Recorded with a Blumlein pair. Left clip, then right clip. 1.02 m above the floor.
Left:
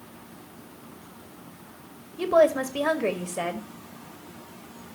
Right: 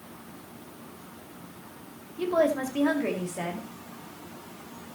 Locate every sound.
2.2 s a woman speaking: 15° left, 2.0 m